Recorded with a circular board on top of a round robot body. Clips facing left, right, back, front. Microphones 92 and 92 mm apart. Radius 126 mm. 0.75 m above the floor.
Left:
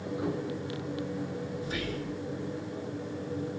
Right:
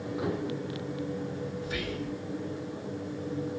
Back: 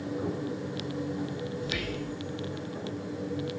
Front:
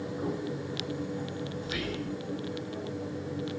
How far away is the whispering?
About 1.6 m.